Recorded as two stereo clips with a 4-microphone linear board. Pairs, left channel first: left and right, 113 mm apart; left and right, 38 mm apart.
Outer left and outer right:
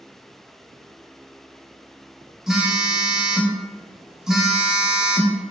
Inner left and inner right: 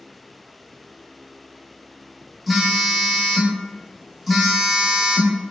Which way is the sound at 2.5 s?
5° right (ahead or behind).